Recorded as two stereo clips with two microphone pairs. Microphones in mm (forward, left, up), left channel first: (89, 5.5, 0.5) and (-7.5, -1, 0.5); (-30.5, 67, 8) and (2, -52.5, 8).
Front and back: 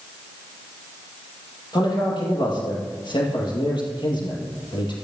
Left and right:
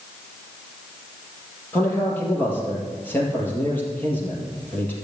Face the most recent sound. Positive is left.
turn(degrees=30)